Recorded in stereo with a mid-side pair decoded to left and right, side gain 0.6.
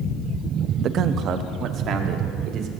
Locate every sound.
0.8 s a man speaking: 50° right, 0.8 m; by 2.7 s 55° right, 3 m